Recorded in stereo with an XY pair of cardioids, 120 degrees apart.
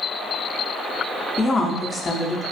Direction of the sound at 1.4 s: 25° left.